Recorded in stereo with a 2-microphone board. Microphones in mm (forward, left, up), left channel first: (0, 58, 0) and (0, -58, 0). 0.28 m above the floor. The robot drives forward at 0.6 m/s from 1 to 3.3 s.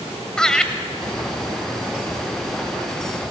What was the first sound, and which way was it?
Laughter, 5° left (ahead or behind).